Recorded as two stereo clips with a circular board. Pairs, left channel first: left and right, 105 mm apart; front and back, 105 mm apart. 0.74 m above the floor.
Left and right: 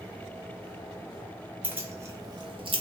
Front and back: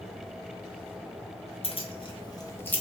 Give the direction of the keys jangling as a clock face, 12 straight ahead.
1 o'clock.